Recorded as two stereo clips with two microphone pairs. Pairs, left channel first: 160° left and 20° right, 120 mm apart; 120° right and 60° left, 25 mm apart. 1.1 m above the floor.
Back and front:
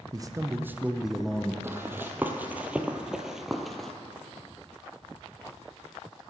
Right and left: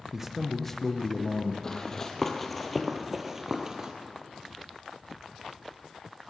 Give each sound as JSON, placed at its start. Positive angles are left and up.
{"t": 0.1, "sound": "a man speaking", "azimuth_deg": 10, "distance_m": 0.6}
{"t": 1.6, "sound": "running footsteps", "azimuth_deg": -80, "distance_m": 1.3}